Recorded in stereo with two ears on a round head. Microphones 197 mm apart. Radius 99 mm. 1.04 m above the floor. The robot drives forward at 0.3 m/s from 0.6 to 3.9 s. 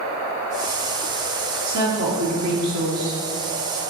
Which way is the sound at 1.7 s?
75° right (ahead or behind).